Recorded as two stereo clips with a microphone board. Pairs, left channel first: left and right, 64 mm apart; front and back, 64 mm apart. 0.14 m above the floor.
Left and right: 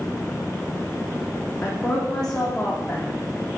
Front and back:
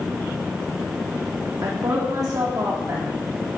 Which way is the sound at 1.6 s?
170° left.